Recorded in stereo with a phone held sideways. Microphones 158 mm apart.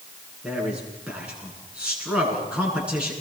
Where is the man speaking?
5° right (ahead or behind), 9 m.